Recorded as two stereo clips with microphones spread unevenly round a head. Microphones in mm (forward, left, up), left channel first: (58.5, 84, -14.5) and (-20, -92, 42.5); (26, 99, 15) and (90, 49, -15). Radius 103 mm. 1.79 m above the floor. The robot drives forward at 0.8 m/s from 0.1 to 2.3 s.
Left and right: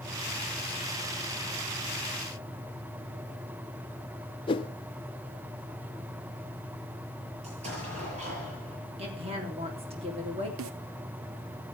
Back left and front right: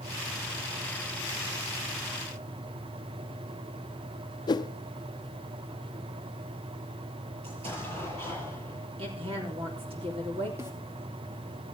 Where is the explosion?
65° right, 7.5 m.